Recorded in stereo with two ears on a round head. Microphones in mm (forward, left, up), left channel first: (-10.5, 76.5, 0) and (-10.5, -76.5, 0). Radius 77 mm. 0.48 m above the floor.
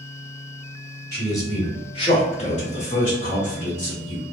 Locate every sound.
1.1 s a man speaking: 15° left (ahead or behind), 1.3 m; by 4.2 s 45° left (ahead or behind), 1.5 m